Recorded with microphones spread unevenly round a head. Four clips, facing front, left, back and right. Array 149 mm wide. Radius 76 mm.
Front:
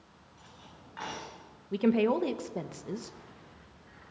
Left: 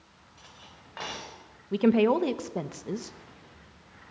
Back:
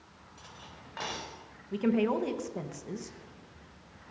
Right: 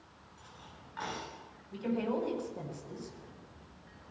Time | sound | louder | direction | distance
0.4 | cutlery clinking | left 1 dB, back 3 dB | 125° left | 3.5 m
1.7 | a woman speaking | left 11 dB, front 2 dB | 80° left | 1.0 m